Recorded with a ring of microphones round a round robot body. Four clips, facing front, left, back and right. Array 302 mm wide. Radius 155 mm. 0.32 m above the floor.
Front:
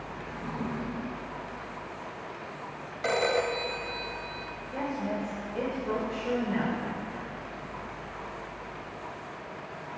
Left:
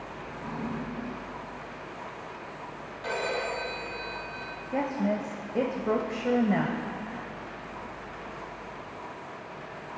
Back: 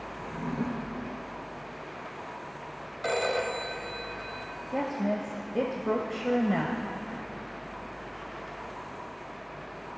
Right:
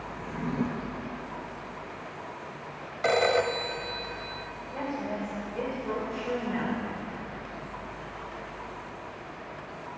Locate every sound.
0.2 s a drawer: 115° right, 3.5 m
3.0 s a phone ringing: 85° right, 1.3 m
4.7 s a woman speaking: 125° left, 1.4 m